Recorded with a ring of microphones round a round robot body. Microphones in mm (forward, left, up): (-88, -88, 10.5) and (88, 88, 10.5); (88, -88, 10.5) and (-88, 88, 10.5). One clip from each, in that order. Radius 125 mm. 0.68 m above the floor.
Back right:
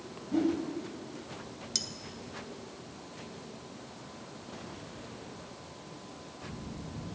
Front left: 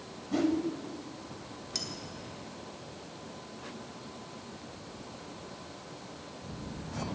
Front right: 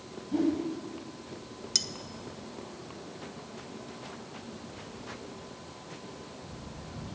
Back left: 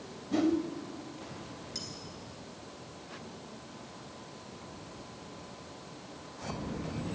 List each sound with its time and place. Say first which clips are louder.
0.3 s a whoosh: even, even; 105° left, 1.4 m
1.8 s cutlery clinking: back right 3 dB, front right 13 dB; 65° right, 0.7 m